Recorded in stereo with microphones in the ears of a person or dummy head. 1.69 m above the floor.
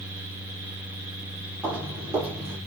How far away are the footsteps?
About 4 m.